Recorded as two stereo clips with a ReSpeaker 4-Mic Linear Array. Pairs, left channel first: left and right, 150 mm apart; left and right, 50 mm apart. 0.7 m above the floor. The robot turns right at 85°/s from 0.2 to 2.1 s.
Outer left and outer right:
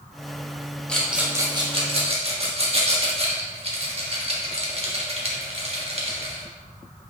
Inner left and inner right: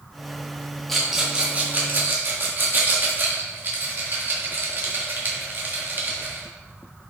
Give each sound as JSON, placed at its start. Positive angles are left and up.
{"t": 0.9, "sound": "a rattle", "side_deg": 5, "distance_m": 1.4}